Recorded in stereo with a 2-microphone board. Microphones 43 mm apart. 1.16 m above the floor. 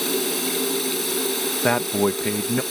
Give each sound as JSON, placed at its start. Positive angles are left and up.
{"t": 0.0, "sound": "running water", "side_deg": 5}
{"t": 1.6, "sound": "a man speaking", "side_deg": 25}